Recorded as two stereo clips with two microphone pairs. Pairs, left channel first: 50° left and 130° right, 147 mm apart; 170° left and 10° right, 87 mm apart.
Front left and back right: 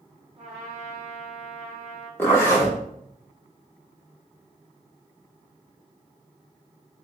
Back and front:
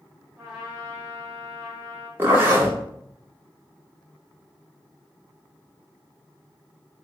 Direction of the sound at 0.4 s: 90° right.